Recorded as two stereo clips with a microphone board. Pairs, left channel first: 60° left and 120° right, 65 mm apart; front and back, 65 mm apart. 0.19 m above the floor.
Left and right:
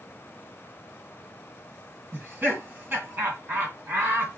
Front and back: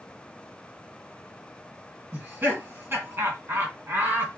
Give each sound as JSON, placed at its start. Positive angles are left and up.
{"t": 2.1, "sound": "laughter", "azimuth_deg": -155, "distance_m": 2.0}